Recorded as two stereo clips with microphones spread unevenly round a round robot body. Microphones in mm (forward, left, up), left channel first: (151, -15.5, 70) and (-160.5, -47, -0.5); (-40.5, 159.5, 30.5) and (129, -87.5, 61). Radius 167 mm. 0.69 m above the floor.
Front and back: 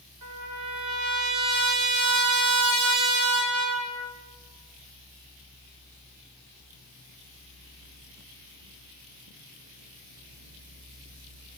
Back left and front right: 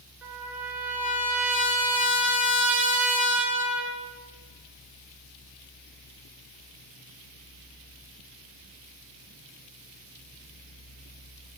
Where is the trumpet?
140° right, 3.5 m.